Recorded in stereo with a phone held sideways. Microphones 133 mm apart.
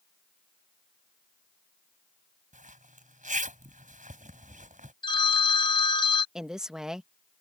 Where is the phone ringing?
35° left (ahead or behind).